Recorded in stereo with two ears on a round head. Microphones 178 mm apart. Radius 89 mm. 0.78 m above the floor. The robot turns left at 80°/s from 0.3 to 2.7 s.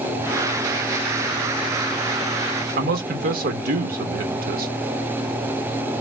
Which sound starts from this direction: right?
A man speaking, at 2.8 s.